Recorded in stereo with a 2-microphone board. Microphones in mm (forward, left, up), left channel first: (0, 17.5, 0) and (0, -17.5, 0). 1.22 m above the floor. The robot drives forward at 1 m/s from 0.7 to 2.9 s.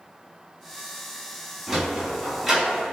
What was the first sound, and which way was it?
A sliding door, 10° right (ahead or behind).